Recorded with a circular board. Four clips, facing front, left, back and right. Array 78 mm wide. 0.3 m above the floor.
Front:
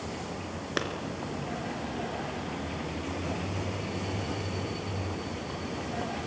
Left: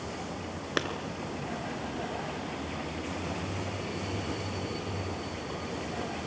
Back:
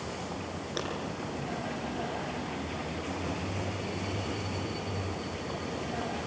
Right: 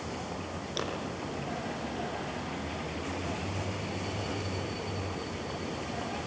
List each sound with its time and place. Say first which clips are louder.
0.8 s a clap: left 5 dB, front 5 dB; 55° left, 4 m